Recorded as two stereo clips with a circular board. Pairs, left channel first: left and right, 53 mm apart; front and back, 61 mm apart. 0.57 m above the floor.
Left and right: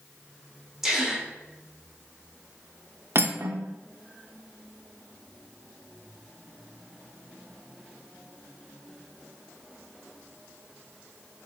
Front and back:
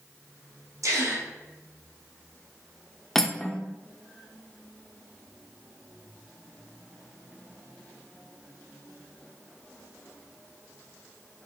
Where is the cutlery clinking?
85° right, 0.8 m.